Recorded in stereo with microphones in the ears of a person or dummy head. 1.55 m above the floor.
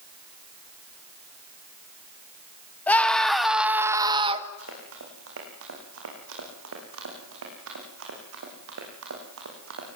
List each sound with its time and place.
2.9 s a scream: 10° left (ahead or behind), 2.5 m; by 4.5 s 35° right (ahead or behind), 1.8 m
4.6 s running footsteps: 75° right (ahead or behind), 8 m; by 9.9 s 70° right (ahead or behind), 7.5 m